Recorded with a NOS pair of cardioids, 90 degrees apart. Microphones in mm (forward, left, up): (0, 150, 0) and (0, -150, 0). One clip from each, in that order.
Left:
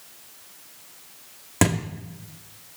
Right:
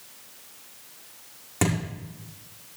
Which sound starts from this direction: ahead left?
A thud, at 1.6 s.